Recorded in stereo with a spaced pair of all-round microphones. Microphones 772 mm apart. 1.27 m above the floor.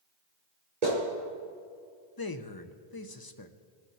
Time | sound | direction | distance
0.8 | a clap | 50° right (ahead or behind) | 4.5 m
2.2 | a man speaking | 30° left (ahead or behind) | 0.7 m